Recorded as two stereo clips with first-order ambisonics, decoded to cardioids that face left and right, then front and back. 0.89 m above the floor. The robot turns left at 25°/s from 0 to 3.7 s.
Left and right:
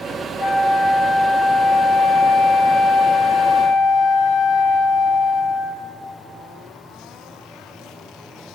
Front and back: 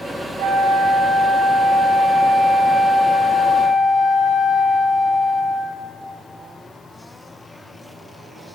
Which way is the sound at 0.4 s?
165° left.